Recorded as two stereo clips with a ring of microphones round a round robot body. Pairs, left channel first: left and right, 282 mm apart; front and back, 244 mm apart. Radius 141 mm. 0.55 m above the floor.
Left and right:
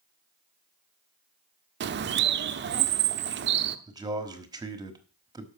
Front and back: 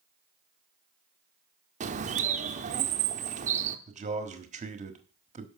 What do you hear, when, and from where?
1.8 s a bird: 125° right, 0.7 m
3.9 s a man speaking: 155° right, 1.3 m